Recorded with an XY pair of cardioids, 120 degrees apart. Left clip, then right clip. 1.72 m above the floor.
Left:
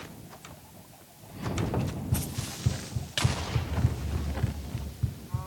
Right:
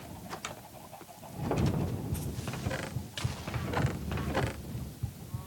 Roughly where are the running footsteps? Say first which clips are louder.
Left 3 dB; ahead left.